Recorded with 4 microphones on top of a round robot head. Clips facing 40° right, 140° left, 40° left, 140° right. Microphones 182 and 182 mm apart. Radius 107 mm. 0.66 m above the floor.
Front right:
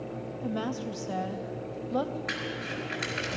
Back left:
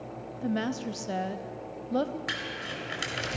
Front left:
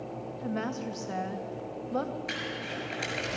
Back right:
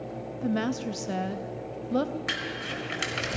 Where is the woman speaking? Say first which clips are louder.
Back left 3 dB, back right 6 dB; 160° right, 0.6 m.